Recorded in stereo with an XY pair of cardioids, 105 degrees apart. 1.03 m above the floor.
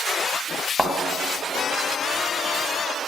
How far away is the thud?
About 2.5 m.